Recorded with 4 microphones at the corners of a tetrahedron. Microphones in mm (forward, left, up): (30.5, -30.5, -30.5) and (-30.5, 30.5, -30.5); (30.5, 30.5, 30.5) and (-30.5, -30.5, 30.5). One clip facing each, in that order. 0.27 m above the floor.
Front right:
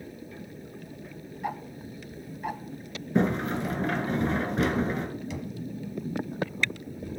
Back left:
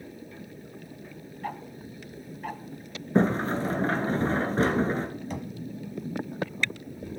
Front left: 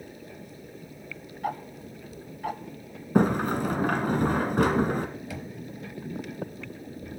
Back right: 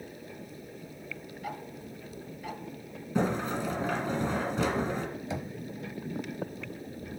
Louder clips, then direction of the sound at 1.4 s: Front right 2 dB, front left 8 dB; 30° left.